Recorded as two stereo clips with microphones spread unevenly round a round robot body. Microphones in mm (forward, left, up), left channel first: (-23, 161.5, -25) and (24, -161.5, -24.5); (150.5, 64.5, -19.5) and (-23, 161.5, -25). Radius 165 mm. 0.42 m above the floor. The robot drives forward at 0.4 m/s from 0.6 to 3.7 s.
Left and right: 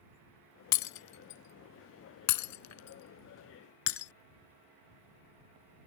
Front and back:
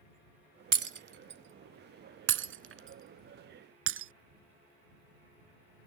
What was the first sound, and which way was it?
Breaking glass, 120° left.